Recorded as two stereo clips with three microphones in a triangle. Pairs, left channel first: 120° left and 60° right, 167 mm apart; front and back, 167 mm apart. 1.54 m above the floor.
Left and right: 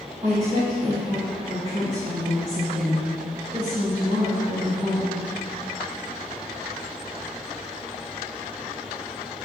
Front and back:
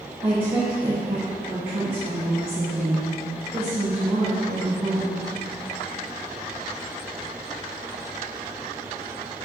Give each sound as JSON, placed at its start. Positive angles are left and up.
{"t": 0.2, "sound": "a woman speaking", "azimuth_deg": -115, "distance_m": 2.0}